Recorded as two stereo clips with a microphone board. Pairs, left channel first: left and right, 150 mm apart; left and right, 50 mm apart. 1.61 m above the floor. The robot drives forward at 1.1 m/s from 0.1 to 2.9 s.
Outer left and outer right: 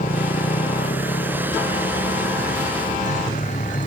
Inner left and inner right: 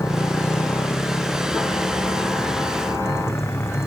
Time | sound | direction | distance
0.0 | a motorcycle | 70° left (ahead or behind) | ?